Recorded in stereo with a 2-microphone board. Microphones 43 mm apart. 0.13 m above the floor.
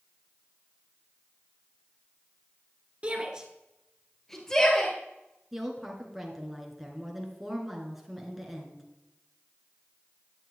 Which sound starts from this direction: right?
A shout, at 3.0 s.